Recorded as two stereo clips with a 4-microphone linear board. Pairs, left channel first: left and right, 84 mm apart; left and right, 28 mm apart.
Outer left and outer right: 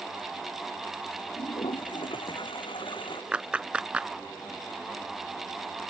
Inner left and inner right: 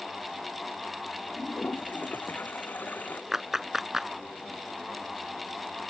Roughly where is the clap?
Centre.